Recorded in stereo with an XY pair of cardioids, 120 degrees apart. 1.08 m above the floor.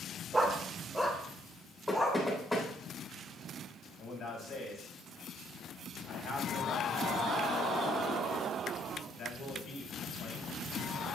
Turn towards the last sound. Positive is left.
turn(degrees=65)